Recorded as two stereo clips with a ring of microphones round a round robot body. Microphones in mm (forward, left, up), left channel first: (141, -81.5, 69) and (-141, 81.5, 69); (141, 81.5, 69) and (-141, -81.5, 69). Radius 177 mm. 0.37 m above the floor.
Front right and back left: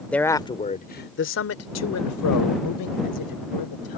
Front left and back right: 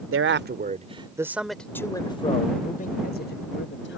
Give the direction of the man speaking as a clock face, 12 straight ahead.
4 o'clock.